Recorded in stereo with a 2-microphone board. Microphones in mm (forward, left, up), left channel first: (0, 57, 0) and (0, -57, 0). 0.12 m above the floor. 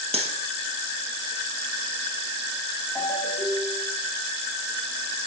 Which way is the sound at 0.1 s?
65° right (ahead or behind).